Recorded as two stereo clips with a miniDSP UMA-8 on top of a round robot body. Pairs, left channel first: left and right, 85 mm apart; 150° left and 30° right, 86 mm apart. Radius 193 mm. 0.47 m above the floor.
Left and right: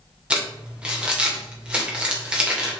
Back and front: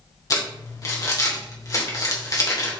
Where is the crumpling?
165° right, 3 m.